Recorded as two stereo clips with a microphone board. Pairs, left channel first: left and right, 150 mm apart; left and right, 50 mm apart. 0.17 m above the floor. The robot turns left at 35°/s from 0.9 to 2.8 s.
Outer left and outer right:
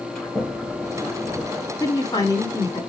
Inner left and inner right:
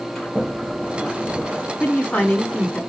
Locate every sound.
0.1 s a sliding door: 5° left (ahead or behind), 4 m; by 1.7 s 20° right (ahead or behind), 4 m
1.8 s a woman speaking: 25° left (ahead or behind), 1.4 m